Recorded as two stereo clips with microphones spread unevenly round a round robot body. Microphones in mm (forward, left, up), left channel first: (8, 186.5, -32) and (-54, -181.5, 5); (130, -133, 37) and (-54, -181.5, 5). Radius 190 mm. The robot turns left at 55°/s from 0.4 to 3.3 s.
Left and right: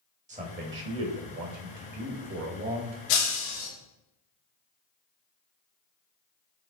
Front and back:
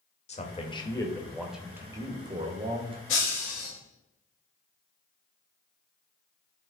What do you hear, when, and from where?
0.3 s a man speaking: 30° right, 1.5 m; by 3.0 s 175° right, 1.5 m
3.1 s breaking glass: 65° left, 4 m; by 3.7 s 50° left, 4 m